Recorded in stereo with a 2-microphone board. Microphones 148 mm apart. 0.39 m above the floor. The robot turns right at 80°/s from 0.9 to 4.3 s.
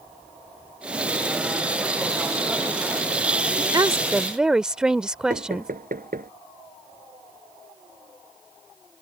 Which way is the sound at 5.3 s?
75° right (ahead or behind).